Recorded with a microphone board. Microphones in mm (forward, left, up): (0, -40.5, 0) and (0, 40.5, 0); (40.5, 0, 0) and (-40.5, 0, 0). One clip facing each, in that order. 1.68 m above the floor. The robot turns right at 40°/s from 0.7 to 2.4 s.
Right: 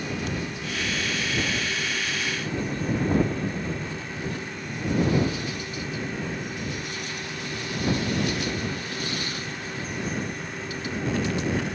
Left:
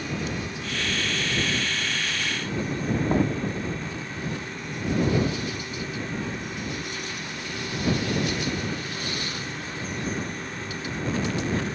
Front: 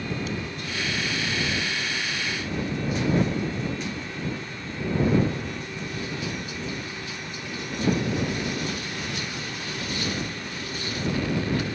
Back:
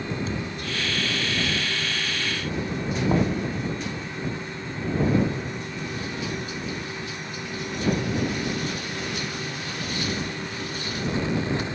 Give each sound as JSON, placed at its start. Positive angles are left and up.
{"t": 0.3, "sound": "a thud", "azimuth_deg": -130}
{"t": 3.1, "sound": "knocking", "azimuth_deg": 150}